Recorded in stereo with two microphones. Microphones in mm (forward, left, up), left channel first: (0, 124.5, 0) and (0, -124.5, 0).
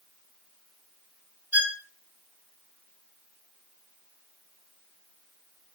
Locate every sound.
1.5 s a violin: 70° right (ahead or behind), 3 m